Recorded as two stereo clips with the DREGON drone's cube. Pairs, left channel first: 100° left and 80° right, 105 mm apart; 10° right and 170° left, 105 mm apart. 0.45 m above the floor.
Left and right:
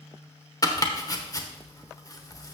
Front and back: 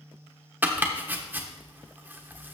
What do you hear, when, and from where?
0.6 s chopping: 110° left, 1.0 m